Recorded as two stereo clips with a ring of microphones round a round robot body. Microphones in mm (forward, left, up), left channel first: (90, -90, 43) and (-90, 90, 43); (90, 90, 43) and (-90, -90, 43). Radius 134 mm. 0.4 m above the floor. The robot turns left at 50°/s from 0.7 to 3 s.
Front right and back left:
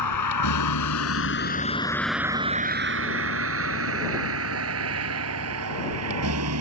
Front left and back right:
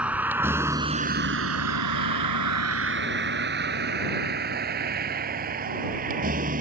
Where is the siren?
No siren in this recording.